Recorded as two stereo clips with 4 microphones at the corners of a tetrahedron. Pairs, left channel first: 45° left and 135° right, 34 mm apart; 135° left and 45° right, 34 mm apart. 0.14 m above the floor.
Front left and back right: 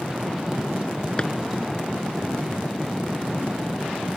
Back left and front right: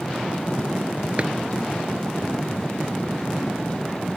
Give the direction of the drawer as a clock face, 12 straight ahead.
12 o'clock.